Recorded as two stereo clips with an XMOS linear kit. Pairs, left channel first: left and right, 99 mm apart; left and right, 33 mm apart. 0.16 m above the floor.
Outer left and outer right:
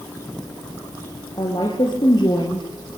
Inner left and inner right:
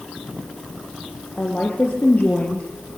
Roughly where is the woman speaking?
Left.